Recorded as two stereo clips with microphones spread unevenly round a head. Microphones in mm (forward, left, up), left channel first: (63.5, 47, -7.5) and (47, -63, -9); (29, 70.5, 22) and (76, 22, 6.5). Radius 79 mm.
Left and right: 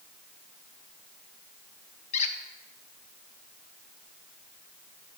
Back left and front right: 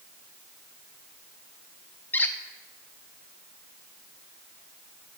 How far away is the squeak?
About 0.7 m.